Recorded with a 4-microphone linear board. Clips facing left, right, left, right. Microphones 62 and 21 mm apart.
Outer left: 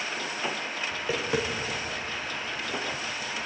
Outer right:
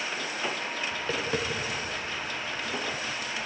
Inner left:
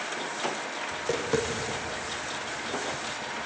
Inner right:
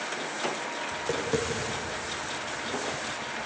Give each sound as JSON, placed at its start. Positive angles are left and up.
{"t": 0.9, "sound": "tapping", "side_deg": 5, "distance_m": 4.5}